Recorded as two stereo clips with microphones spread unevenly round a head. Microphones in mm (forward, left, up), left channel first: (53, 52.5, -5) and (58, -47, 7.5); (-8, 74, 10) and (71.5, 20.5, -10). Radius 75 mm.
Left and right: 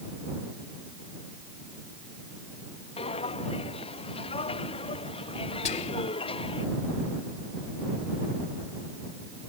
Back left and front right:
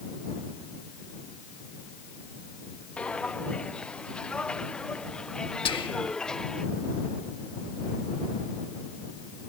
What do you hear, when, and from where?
3.0 s footsteps: 70° left; by 6.7 s 65° left
5.7 s whispering: 115° left